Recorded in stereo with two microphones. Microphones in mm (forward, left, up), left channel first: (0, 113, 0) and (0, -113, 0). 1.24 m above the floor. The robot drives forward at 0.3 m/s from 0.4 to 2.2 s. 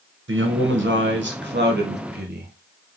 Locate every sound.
0.3 s a man speaking: 60° right (ahead or behind), 1.2 m; by 2.5 s 45° right (ahead or behind), 1.5 m